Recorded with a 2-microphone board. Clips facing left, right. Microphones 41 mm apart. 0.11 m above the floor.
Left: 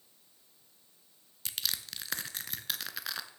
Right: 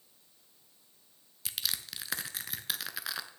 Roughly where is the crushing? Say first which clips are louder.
Even; centre.